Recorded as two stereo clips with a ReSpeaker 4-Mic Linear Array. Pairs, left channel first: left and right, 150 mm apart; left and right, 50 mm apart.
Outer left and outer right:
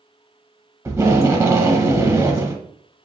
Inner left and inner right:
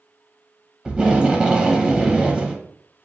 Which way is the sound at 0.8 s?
20° right (ahead or behind).